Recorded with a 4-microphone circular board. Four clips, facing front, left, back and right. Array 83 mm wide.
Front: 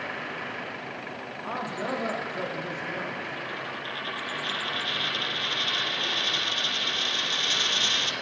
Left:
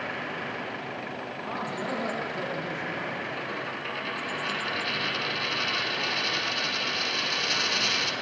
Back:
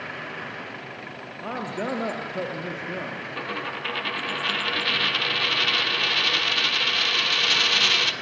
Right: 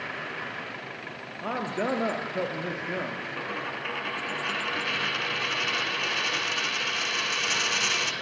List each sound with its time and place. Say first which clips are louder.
1.4 s a man speaking: right 5 dB, back 3 dB; 130° right, 3.5 m
3.4 s a dropped coin: even, back 4 dB; 165° right, 1.6 m